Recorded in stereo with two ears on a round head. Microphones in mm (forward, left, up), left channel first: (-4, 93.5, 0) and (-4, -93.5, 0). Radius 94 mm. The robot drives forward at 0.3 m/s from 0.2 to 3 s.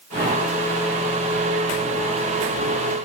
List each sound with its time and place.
Only background noise.